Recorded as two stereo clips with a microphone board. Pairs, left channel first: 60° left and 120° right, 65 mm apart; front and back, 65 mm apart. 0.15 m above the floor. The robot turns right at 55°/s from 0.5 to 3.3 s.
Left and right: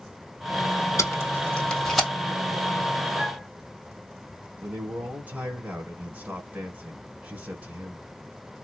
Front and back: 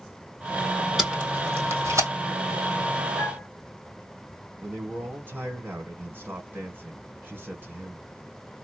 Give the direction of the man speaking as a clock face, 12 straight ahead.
5 o'clock.